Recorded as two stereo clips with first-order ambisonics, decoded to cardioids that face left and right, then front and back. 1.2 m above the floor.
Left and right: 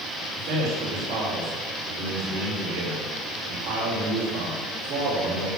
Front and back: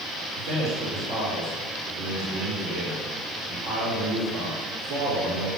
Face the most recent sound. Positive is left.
turn(degrees=-130)